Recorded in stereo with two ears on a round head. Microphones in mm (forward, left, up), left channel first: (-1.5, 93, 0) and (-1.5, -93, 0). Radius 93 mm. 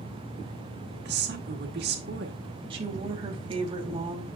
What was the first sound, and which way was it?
A woman speaking, 55° right (ahead or behind).